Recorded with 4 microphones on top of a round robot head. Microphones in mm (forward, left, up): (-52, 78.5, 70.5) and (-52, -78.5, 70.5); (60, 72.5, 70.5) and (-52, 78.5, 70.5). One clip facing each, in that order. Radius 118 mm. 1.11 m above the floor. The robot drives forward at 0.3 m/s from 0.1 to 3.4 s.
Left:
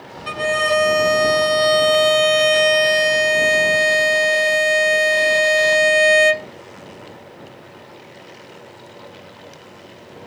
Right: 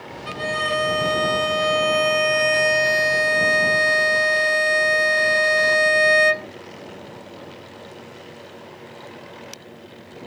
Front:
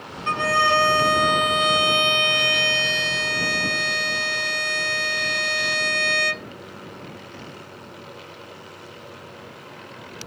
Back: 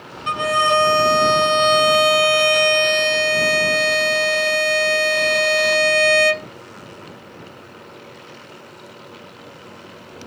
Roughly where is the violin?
Left.